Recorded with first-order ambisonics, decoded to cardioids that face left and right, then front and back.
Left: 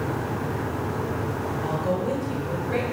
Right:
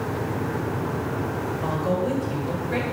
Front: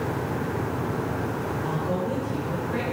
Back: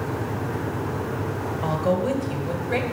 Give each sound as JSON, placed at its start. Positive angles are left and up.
{"t": 1.6, "sound": "a woman speaking", "azimuth_deg": -175, "distance_m": 2.5}